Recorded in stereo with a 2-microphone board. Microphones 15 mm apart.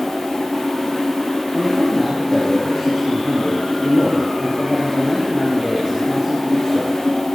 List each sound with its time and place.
1.5 s a man speaking: 35° right (ahead or behind), 6.5 m